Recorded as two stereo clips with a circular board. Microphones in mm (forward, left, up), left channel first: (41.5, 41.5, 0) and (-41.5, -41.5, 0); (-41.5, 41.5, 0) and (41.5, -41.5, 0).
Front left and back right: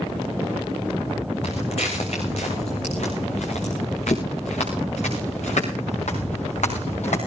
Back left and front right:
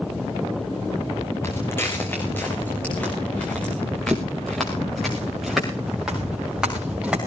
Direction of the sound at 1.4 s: 70° left.